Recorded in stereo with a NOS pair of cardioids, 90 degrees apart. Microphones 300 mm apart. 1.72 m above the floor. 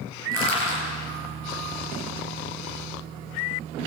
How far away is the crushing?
About 9.5 m.